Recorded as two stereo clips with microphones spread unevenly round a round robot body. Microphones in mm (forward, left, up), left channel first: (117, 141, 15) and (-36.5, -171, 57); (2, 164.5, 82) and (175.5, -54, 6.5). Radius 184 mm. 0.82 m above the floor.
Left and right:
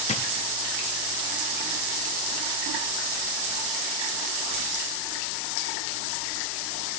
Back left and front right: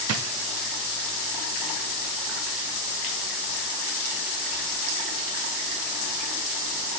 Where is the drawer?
10° right, 0.6 m.